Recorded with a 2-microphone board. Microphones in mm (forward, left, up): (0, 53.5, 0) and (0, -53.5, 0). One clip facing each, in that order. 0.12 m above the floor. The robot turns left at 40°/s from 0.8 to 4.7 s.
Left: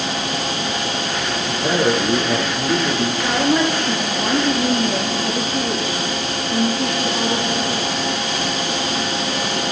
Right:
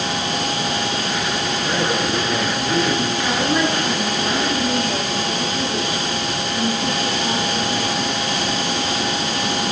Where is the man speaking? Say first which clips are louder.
Left 6 dB; 85° left, 5 m; by 3.1 s 20° left, 5 m.